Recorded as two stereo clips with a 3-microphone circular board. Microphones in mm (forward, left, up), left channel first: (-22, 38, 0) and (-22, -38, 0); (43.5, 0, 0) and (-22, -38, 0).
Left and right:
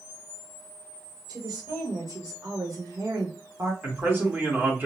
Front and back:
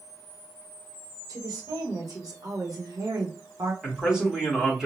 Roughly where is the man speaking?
Right.